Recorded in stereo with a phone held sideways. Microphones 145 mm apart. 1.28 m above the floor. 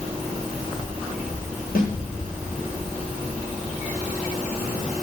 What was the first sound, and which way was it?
A snare drum, 85° left.